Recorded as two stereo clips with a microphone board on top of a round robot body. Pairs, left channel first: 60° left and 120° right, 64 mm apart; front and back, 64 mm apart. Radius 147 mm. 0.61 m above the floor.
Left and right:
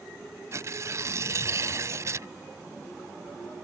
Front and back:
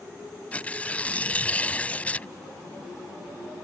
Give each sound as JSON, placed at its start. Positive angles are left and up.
{"t": 0.5, "sound": "tearing paper", "azimuth_deg": -70}